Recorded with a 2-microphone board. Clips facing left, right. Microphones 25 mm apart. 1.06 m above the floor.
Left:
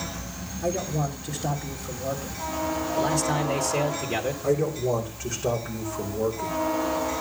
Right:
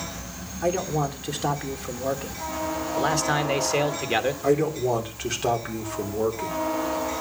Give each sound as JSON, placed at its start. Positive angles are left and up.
{"t": 0.6, "sound": "a man speaking", "side_deg": -85, "distance_m": 3.0}
{"t": 3.0, "sound": "a man speaking", "side_deg": -45, "distance_m": 1.4}
{"t": 4.4, "sound": "a man speaking", "side_deg": -70, "distance_m": 3.5}